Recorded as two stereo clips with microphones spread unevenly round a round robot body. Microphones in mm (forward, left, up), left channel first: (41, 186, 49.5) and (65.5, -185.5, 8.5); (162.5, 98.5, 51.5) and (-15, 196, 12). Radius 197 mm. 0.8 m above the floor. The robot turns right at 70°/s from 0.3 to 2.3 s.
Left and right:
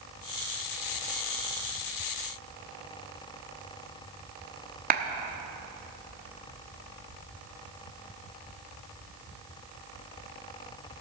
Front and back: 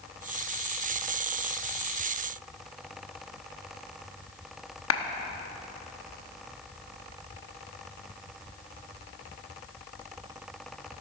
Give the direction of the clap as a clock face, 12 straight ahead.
1 o'clock.